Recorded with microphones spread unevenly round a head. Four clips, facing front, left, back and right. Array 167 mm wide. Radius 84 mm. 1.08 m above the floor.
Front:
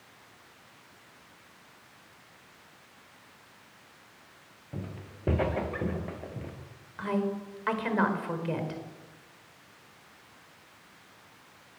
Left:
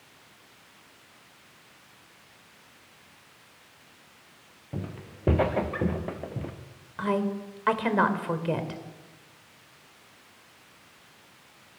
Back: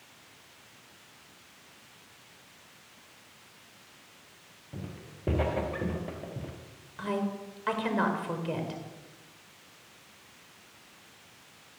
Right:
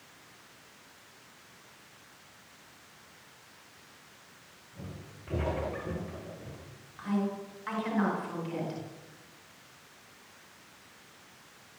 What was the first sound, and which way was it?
Footsteps, 85° left.